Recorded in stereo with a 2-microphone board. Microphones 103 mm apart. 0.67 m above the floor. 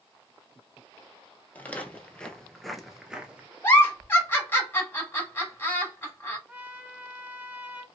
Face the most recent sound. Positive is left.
turn(degrees=-20)  # may be behind; listen again after turning